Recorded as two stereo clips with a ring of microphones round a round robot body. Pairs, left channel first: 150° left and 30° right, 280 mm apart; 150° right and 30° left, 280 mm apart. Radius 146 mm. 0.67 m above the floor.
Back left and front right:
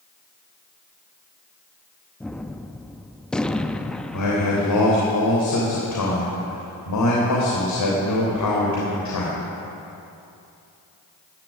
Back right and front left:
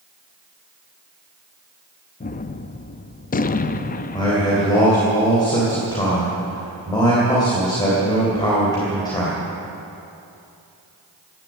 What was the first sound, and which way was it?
A gunshot, 125° right.